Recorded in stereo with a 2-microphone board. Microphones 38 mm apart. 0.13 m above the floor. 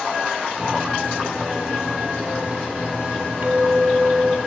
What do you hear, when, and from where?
0.6 s a microwave: 45° right (ahead or behind), 4.5 m
3.4 s a clink: 50° right (ahead or behind), 2.0 m